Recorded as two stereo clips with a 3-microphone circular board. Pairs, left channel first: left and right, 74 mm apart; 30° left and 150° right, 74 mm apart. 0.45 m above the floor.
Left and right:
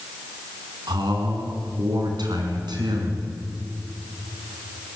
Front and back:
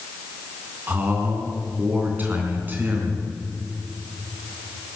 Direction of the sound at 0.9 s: 85° right.